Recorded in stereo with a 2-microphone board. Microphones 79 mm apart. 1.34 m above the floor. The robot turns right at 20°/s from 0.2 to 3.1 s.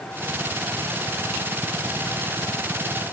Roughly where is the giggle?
No giggle in this recording.